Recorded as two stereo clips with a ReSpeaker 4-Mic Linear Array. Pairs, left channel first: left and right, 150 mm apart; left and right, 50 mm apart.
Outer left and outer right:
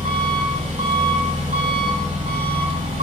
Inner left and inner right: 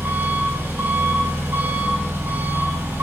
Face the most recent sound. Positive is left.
turn(degrees=-50)  # may be behind; listen again after turning